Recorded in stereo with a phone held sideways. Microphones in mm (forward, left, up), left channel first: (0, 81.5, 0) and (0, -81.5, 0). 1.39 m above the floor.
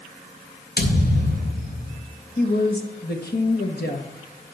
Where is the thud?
75° left (ahead or behind), 3 m.